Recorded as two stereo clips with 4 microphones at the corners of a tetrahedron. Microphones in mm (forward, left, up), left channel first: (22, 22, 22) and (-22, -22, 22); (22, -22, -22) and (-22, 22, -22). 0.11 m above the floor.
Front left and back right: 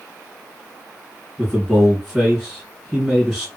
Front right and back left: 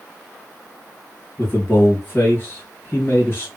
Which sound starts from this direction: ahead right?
A man speaking, at 1.4 s.